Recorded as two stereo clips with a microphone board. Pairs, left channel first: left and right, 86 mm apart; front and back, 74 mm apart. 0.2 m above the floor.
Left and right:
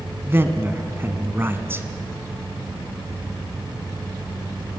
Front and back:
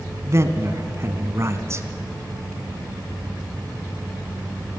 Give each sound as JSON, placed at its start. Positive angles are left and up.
{"t": 0.2, "sound": "a man speaking", "azimuth_deg": -145, "distance_m": 1.7}